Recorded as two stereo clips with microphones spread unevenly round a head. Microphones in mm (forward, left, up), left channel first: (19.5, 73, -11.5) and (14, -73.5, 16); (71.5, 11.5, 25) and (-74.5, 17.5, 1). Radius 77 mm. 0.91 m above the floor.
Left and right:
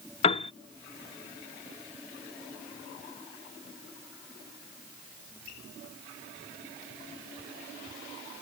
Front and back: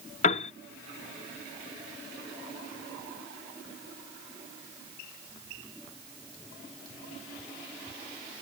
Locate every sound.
0.2 s a piano: 35° left